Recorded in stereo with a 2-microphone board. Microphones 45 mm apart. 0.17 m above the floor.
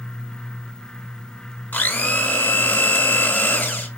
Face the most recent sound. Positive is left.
turn(degrees=40)  # may be behind; listen again after turning